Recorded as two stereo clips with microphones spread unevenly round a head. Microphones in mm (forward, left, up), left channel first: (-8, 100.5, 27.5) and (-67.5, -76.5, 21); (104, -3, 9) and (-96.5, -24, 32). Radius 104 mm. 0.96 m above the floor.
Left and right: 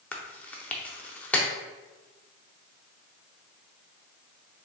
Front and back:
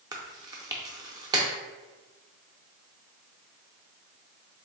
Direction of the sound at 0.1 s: 145° left.